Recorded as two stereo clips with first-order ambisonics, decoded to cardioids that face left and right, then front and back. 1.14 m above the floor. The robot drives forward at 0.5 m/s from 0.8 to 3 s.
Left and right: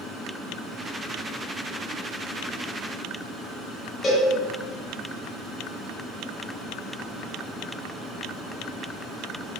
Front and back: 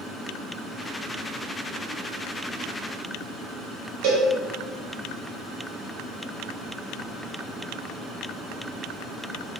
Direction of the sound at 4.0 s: 160° left.